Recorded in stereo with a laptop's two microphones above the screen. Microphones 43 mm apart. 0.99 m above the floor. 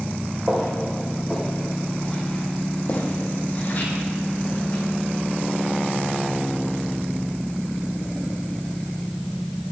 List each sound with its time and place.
0.5 s footsteps: 15° right (ahead or behind), 2.5 m; by 4.8 s 55° left (ahead or behind), 4 m